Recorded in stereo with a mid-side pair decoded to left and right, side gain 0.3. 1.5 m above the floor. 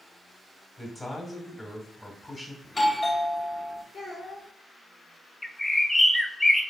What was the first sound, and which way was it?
A man speaking, 25° left.